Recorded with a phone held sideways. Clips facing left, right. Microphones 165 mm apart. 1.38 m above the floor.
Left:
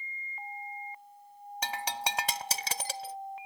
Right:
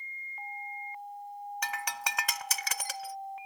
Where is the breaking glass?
30° left (ahead or behind).